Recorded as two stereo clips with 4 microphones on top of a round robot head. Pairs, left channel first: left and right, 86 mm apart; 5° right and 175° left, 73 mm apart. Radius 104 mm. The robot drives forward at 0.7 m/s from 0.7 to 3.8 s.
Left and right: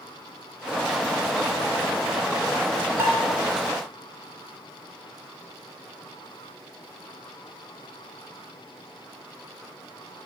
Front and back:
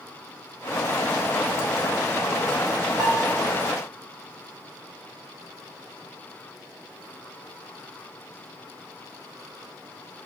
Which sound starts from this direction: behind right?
Dishes clattering, at 3.0 s.